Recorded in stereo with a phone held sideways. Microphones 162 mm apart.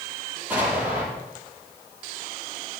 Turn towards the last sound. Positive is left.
turn(degrees=-10)  # may be behind; listen again after turning